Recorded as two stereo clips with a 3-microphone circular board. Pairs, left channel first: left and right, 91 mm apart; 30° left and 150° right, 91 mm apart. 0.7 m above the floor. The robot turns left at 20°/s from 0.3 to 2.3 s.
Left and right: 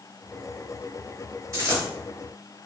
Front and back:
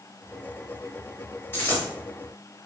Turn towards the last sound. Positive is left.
turn(degrees=-50)